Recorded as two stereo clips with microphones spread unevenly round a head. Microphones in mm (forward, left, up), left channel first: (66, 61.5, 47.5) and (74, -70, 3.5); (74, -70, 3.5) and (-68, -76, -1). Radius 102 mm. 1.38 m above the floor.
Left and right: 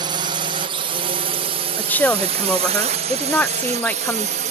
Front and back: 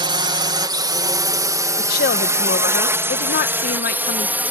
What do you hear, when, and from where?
0.0 s a drone: 125° right; by 4.5 s 100° right
1.8 s a woman speaking: 25° left